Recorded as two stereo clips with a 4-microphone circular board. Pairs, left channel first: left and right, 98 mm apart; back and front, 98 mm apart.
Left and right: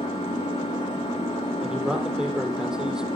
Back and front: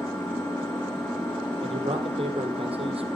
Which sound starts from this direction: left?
An engine running, at 0.0 s.